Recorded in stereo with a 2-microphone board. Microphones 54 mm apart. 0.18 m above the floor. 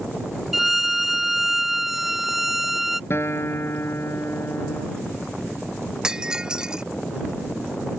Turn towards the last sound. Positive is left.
turn(degrees=-15)  # may be behind; listen again after turning